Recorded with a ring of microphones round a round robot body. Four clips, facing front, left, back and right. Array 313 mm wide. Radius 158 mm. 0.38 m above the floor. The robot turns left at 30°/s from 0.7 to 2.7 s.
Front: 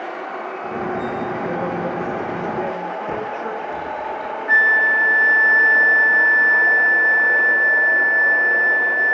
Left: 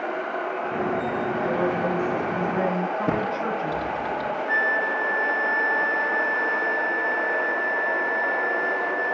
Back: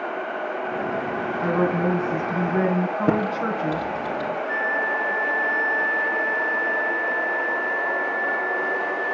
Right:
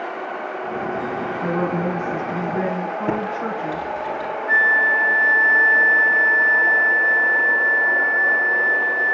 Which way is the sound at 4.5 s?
25° right.